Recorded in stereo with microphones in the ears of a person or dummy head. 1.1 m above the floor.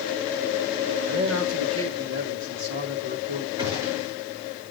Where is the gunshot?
25° right (ahead or behind), 5 m.